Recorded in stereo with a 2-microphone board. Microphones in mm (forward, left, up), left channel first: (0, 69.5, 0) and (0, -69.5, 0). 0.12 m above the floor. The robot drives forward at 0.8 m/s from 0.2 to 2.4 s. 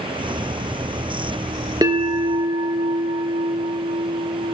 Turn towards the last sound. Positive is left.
turn(degrees=-35)  # may be behind; listen again after turning